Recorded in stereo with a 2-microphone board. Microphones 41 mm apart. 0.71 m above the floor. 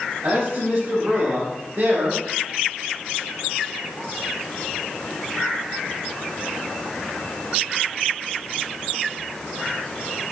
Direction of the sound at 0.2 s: 55° right (ahead or behind).